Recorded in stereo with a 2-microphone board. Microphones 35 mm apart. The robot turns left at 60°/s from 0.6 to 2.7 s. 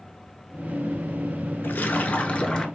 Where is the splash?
80° left, 0.6 m; by 2.7 s 20° left, 0.6 m.